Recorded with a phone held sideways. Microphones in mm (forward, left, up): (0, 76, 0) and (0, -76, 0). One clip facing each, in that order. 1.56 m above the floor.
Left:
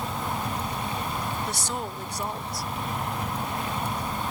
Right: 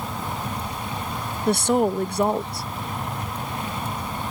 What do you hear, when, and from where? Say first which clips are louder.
0.0 s a fan: even; centre (ahead or behind)
1.5 s a woman speaking: right 12 dB; 65° right (ahead or behind)